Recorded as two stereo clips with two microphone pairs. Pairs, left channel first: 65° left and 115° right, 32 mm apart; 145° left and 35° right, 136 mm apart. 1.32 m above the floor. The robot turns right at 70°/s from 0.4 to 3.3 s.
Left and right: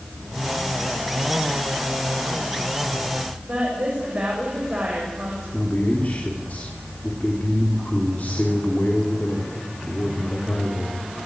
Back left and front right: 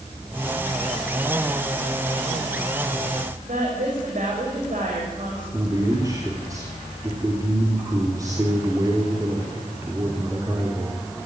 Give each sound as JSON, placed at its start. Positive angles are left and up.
{"t": 3.5, "sound": "a woman speaking", "azimuth_deg": -60, "distance_m": 7.0}
{"t": 5.5, "sound": "a man speaking", "azimuth_deg": 30, "distance_m": 3.5}